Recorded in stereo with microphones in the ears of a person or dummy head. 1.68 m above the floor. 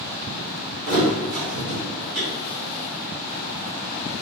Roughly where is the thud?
Right.